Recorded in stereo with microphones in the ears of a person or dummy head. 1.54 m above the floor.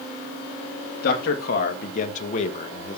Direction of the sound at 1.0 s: 55° left (ahead or behind).